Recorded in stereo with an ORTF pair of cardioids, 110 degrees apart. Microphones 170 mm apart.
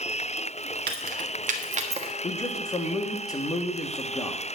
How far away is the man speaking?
About 1.7 m.